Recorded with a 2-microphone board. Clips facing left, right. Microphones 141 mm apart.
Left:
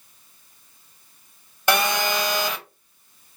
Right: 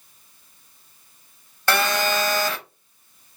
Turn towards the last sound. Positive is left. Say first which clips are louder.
# even
turn(degrees=15)  # may be behind; listen again after turning